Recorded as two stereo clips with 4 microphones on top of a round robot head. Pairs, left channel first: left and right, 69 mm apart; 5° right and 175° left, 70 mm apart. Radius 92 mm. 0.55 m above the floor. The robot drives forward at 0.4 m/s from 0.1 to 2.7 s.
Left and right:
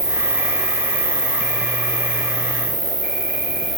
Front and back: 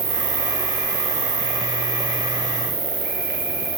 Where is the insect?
170° right, 1.9 m; by 3.8 s 175° right, 3 m.